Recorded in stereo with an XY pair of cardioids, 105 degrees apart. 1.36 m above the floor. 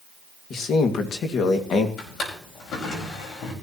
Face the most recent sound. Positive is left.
turn(degrees=65)